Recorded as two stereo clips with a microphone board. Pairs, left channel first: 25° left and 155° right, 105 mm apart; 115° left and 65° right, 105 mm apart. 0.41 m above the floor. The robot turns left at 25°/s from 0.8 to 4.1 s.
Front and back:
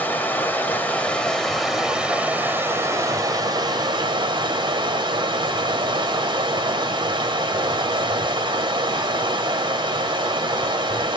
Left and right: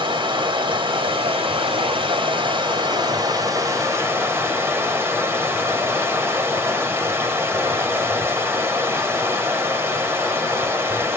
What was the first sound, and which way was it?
Running water, 45° right.